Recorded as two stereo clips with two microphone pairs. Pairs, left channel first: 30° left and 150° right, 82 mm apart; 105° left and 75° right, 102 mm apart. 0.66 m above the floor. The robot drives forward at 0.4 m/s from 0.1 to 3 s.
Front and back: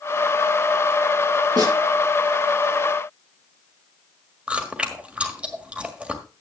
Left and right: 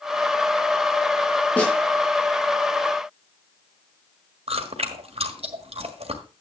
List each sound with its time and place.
1.6 s a snare drum: straight behind, 6 m
4.5 s chewing: 75° right, 1.6 m